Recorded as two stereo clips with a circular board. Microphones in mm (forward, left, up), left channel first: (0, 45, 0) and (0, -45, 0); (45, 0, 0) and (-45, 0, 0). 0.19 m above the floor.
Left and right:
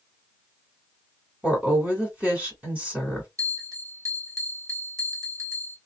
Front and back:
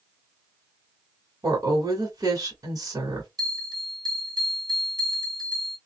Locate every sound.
1.4 s a woman speaking: 155° right, 1.6 m
3.4 s a bell: 145° right, 1.0 m